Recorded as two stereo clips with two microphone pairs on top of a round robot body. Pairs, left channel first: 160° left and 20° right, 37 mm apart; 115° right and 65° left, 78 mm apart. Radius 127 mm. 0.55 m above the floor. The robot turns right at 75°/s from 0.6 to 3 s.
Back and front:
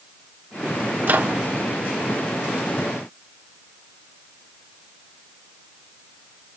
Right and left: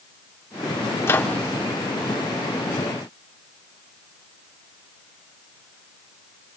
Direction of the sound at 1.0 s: 65° right.